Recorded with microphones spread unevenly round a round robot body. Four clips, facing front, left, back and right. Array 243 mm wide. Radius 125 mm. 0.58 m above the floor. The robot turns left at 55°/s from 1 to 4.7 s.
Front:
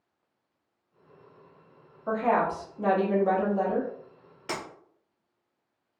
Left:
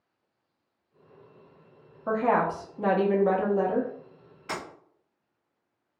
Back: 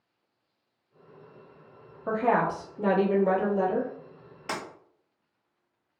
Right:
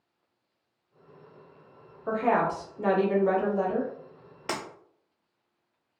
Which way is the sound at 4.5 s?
90° right.